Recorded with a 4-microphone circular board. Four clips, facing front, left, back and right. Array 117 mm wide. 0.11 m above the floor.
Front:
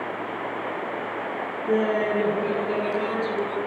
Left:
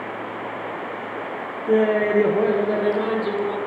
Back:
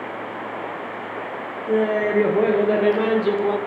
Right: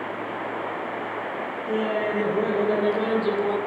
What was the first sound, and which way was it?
Laughter, 90° left.